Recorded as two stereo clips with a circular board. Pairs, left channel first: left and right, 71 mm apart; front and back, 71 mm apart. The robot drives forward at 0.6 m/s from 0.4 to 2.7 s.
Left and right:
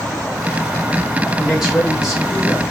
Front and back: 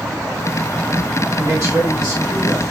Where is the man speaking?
170° right, 2 m; by 2.6 s 175° right, 2.5 m.